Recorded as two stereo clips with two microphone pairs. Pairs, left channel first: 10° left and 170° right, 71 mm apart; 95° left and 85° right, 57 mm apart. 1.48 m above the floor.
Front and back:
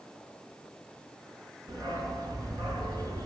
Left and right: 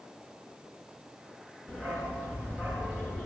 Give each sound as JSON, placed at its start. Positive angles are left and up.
{"t": 1.7, "sound": "a dog barking", "azimuth_deg": 165, "distance_m": 5.5}